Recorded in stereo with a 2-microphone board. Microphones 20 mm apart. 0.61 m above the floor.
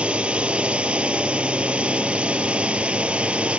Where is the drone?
65° right (ahead or behind); by 3.6 s 70° right (ahead or behind).